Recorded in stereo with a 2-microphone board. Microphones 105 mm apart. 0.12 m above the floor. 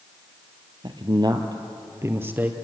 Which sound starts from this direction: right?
A man speaking, at 0.8 s.